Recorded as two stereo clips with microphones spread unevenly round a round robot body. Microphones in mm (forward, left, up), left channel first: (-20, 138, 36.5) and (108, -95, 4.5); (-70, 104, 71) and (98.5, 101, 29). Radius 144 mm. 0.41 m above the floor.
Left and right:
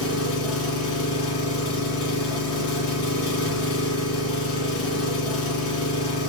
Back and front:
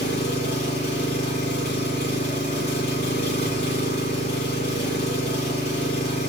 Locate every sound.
0.0 s an engine running: 150° left, 1.9 m